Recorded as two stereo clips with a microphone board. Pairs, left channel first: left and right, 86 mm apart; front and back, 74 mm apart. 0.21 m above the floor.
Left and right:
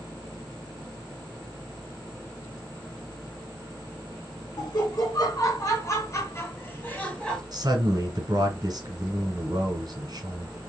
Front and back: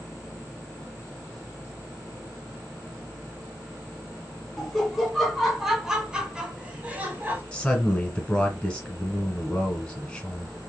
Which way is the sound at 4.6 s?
90° left.